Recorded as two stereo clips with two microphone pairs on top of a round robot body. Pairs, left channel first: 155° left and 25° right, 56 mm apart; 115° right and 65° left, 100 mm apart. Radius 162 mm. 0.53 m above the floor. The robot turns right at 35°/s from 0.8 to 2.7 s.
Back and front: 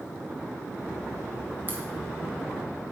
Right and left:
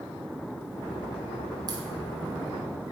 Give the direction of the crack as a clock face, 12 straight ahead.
11 o'clock.